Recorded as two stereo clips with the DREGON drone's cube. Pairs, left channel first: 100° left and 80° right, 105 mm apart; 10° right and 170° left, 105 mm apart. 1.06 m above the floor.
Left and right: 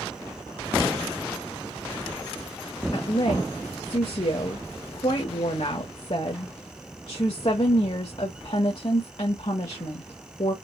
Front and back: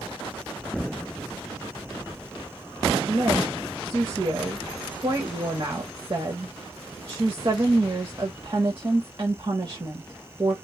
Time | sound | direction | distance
2.9 | a woman speaking | 120° left | 1.5 m